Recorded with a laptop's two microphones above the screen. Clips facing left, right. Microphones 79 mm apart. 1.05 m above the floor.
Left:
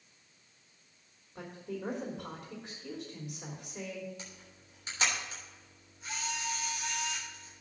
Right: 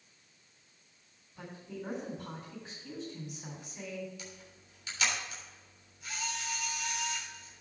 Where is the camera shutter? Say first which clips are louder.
Right 1 dB; 30° left (ahead or behind), 3.5 m.